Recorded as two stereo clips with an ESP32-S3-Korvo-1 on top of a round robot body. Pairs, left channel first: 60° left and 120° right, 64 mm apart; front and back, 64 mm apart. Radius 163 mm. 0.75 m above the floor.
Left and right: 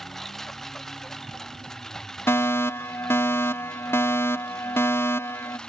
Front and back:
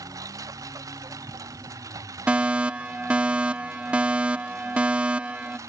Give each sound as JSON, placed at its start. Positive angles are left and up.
{"t": 0.0, "sound": "a lawn mower", "azimuth_deg": 145}
{"t": 2.3, "sound": "a fire alarm", "azimuth_deg": 110}